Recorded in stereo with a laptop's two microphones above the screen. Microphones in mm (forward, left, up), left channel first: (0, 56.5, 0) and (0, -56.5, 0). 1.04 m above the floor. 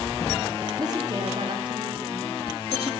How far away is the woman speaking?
About 2 m.